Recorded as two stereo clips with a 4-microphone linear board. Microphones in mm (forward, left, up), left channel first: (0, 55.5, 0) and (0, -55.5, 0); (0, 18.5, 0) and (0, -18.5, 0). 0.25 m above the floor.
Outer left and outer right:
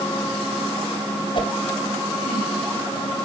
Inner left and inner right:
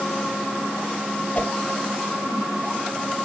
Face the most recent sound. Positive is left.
turn(degrees=45)  # may be behind; listen again after turning